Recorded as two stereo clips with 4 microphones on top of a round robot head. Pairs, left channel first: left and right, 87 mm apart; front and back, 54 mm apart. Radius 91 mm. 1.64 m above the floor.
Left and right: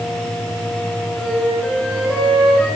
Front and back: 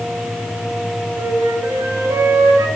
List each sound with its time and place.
1.2 s a flute: 170° left, 4.5 m